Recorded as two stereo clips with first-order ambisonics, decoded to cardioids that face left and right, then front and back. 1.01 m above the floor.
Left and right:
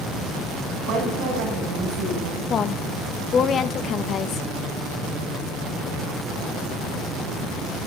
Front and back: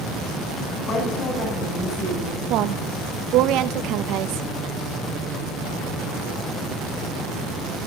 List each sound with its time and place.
0.8 s a woman speaking: 55° right, 9.5 m; by 2.4 s 60° right, 9.5 m
2.5 s a woman speaking: 150° left, 0.7 m